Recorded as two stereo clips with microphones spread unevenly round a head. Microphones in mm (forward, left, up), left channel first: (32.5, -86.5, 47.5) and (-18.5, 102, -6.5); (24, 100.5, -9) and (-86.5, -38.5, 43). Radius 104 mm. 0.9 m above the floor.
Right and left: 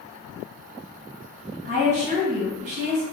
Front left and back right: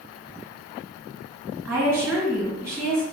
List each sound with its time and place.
1.6 s a woman speaking: 150° left, 1.8 m